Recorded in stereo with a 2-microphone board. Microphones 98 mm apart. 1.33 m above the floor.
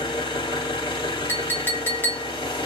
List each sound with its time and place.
0.0 s an engine running: 55° left (ahead or behind), 1.6 m
1.3 s a clink: 20° left (ahead or behind), 0.7 m